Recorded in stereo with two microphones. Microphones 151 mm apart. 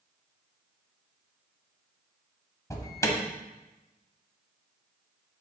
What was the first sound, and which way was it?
An alarm, 20° left (ahead or behind).